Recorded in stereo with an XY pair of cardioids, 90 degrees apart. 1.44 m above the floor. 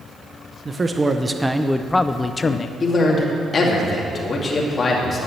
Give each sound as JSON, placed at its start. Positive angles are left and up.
{"t": 0.7, "sound": "a man speaking", "azimuth_deg": -35, "distance_m": 0.8}
{"t": 2.8, "sound": "a man speaking", "azimuth_deg": 45, "distance_m": 2.5}